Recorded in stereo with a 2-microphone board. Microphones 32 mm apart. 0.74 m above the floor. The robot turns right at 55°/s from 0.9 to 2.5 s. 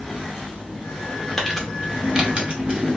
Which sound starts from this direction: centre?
Crumpling, at 1.4 s.